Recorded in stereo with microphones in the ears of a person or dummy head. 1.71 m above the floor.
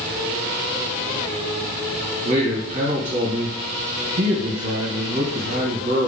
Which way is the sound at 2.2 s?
40° right (ahead or behind).